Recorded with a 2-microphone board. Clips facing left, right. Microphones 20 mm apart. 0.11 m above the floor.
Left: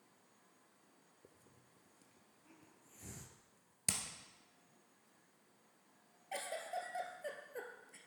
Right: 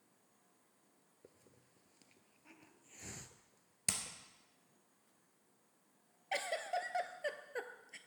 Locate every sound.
1.2 s a hiss: 50° right (ahead or behind), 0.6 m
3.9 s hammering: 5° right (ahead or behind), 1.3 m
6.3 s a giggle: 50° right (ahead or behind), 0.6 m